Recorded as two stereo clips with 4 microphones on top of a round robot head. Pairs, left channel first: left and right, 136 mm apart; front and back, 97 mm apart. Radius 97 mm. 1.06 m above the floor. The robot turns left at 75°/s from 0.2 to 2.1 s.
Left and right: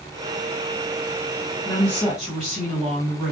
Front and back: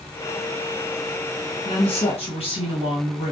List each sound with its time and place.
1.6 s a woman speaking: 30° left, 1.6 m; by 3.3 s 5° right, 1.6 m